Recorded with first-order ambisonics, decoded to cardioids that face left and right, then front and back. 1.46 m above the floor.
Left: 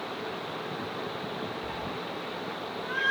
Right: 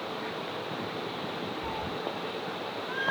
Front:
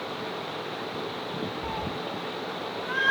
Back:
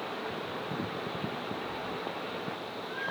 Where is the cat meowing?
20° right, 2.0 m; by 3.1 s 20° left, 1.6 m.